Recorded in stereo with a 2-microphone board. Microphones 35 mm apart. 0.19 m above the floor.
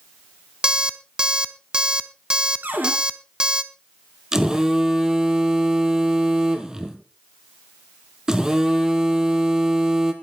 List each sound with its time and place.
0.6 s an alarm clock: 25° right (ahead or behind), 0.6 m
2.6 s a cupboard door: 65° right (ahead or behind), 2.5 m
4.3 s a phone buzzing: 15° right (ahead or behind), 1.6 m